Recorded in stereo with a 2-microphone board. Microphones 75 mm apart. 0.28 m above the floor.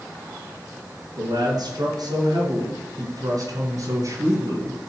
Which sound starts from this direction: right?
A man speaking, at 1.2 s.